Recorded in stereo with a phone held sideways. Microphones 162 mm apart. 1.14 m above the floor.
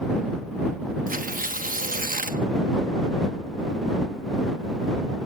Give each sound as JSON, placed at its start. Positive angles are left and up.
{"t": 1.1, "sound": "tearing paper", "side_deg": -60}